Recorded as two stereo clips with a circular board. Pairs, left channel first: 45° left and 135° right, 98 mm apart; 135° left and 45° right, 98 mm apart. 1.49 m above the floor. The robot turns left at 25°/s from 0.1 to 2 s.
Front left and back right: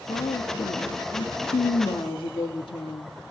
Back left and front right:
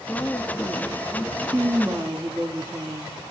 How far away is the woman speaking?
About 3 m.